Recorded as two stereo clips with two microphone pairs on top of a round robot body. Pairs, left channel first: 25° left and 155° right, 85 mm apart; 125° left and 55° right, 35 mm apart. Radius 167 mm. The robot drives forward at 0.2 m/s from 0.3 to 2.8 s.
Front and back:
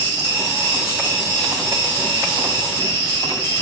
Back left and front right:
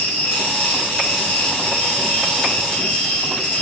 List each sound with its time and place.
0.0 s an insect: 145° left, 0.8 m; by 3.6 s 160° left, 1.3 m